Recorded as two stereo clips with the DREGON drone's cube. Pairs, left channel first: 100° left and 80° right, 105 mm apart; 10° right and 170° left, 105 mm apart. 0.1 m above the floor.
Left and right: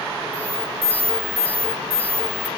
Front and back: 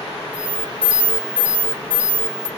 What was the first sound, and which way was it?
An alarm, 170° left.